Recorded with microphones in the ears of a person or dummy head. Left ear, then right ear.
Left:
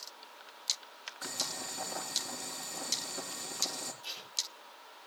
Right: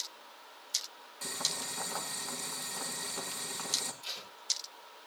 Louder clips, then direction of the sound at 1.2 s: Right 2 dB; 25° right (ahead or behind).